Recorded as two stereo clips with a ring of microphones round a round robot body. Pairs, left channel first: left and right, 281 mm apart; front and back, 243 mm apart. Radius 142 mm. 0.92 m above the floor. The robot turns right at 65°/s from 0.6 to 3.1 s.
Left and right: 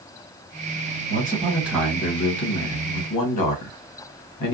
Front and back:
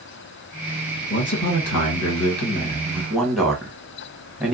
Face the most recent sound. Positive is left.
turn(degrees=90)